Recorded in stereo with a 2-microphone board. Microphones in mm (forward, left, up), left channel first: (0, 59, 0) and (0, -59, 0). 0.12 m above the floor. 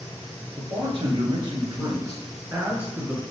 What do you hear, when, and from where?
0.6 s a man speaking: 50° right (ahead or behind), 1.7 m; by 3.2 s 5° right (ahead or behind), 1.1 m